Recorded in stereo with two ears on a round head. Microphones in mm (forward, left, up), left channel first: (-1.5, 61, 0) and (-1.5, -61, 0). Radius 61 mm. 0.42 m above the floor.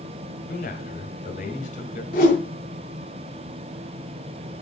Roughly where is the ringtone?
I don't hear a ringtone.